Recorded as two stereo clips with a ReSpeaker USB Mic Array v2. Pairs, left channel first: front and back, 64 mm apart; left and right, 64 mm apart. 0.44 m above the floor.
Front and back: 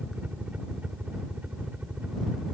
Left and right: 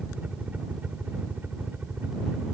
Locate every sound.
0.0 s a helicopter: 135° right; by 2.5 s 130° right